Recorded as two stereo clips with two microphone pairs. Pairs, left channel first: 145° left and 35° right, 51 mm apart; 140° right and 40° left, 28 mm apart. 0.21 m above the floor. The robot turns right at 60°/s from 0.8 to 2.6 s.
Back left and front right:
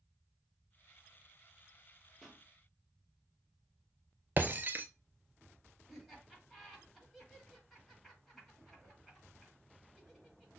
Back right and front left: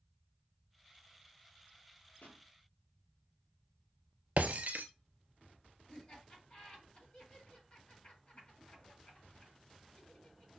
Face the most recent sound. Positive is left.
turn(degrees=-130)